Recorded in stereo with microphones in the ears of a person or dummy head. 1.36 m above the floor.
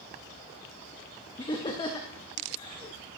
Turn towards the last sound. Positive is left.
turn(degrees=20)  # may be behind; listen again after turning